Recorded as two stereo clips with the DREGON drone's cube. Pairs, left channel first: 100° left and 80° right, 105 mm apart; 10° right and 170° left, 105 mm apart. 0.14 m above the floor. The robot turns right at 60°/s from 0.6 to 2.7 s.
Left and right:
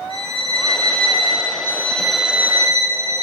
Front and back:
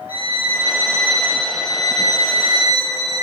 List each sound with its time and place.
0.1 s a violin: 105° left, 2.5 m; by 1.5 s 160° left, 2.5 m
1.6 s a violin: 160° left, 0.6 m; by 3.2 s 135° right, 0.6 m